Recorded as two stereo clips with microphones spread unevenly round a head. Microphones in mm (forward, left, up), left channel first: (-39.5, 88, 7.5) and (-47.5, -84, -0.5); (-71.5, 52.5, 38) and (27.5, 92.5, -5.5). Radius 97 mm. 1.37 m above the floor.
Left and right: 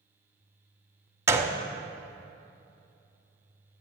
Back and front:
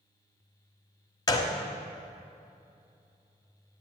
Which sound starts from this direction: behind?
A gunshot, at 1.3 s.